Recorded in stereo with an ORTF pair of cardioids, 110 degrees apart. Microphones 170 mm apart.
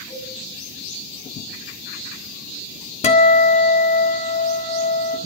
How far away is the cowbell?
About 4.5 m.